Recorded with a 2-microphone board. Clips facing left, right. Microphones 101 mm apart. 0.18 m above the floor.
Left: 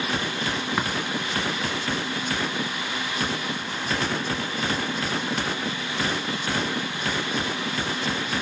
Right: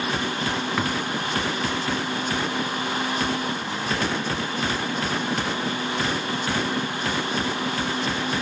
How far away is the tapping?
About 1.2 m.